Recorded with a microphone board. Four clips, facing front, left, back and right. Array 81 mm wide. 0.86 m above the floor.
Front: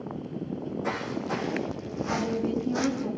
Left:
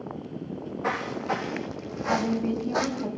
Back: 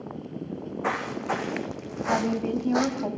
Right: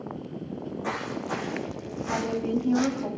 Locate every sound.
0.5 s footsteps: 155° left, 4.5 m; by 3.1 s 135° left, 2.5 m
2.1 s a woman speaking: straight behind, 5.5 m